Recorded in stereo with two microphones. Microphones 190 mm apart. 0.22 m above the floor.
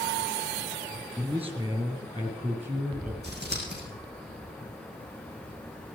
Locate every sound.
1.2 s a man speaking: 25° right (ahead or behind), 3.5 m; by 3.1 s 35° right (ahead or behind), 4.5 m
3.2 s scissors: 60° right (ahead or behind), 4.5 m